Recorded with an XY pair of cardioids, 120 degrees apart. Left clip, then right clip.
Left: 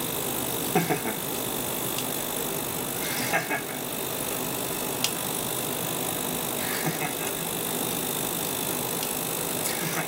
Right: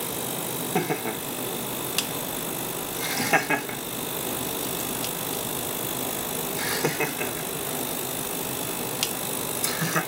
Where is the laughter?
5° left, 1.4 m; by 10.0 s 80° right, 5.5 m.